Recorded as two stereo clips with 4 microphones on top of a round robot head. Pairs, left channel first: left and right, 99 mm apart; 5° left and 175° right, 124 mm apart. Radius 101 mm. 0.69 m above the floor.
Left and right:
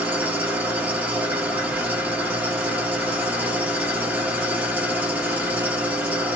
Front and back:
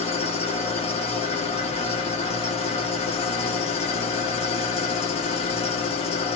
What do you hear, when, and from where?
0.0 s an engine running: 15° right, 1.1 m